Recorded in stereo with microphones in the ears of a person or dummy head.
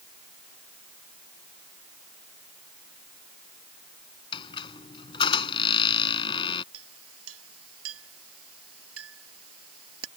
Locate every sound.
4.3 s a squeak: 25° left (ahead or behind)
6.7 s a clink: 85° right